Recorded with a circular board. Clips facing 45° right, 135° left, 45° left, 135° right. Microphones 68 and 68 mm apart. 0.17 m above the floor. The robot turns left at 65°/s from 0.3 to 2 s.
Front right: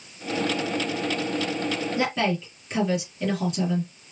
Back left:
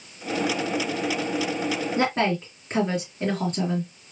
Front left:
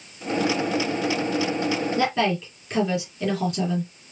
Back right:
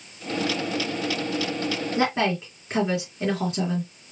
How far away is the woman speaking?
About 2.5 m.